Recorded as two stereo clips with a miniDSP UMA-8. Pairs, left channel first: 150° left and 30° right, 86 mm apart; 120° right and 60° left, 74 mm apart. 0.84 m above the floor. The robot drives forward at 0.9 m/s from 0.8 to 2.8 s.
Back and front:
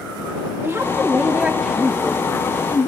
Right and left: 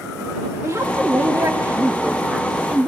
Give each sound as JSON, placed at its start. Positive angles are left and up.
{"t": 0.6, "sound": "a woman speaking", "azimuth_deg": 25, "distance_m": 1.5}